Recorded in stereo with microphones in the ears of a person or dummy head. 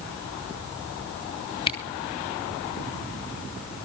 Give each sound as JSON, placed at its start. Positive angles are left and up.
{"t": 1.7, "sound": "a camera shutter", "side_deg": 30, "distance_m": 2.0}